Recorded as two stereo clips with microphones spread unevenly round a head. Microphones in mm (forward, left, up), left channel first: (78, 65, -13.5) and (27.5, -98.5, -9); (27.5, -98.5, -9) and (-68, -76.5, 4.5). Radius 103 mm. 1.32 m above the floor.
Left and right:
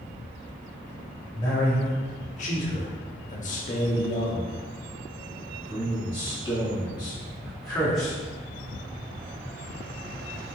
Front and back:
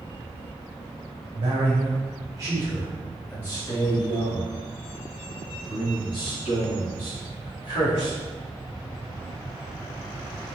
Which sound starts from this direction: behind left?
A man speaking, at 1.4 s.